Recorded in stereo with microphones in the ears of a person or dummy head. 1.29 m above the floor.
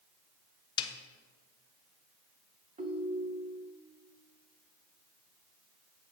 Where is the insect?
No insect in this recording.